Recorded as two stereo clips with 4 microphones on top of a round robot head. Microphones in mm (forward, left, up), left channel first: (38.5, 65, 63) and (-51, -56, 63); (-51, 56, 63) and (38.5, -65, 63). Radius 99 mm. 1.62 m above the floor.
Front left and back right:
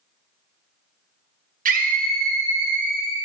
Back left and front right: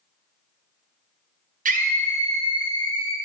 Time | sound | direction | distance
1.6 | a scream | 90° right | 1.2 m